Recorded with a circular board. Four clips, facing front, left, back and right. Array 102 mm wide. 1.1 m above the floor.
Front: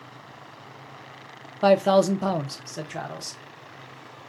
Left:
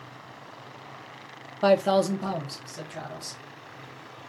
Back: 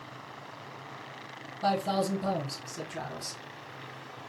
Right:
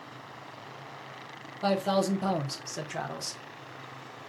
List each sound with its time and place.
1.6 s a man speaking: 35° left, 0.6 m; by 3.4 s 50° right, 1.0 m